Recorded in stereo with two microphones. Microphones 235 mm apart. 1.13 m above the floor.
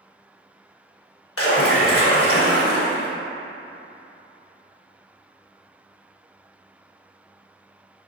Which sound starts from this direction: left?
A splash, at 1.4 s.